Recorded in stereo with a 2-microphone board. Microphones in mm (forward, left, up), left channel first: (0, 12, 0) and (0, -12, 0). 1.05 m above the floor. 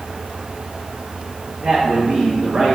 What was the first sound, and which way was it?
A man speaking, 55° right (ahead or behind).